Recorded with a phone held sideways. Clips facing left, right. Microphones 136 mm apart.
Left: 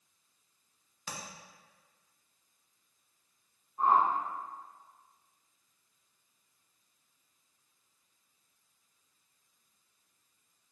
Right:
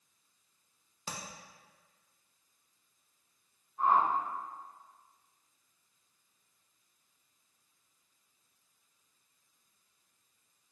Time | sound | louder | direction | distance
1.1 | tapping | right 1 dB | 30° right (ahead or behind) | 0.6 m
3.8 | a whoosh | left 1 dB | 35° left (ahead or behind) | 0.9 m